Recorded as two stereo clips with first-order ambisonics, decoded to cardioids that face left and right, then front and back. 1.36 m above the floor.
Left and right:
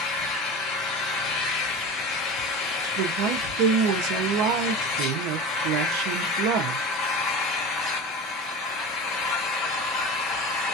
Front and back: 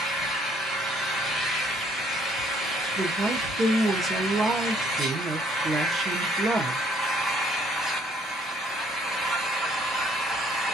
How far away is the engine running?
About 1.5 m.